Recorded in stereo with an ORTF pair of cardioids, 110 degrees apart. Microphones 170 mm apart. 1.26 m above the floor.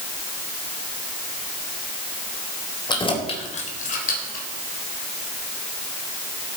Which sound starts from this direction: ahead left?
Keys jangling, at 2.9 s.